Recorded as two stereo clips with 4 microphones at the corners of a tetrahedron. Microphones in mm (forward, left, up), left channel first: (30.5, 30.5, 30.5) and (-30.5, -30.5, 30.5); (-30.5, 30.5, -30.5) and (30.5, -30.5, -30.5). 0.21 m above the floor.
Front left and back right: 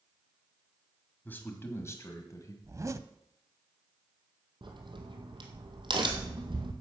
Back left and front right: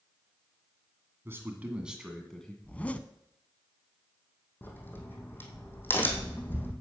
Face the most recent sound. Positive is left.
turn(degrees=-160)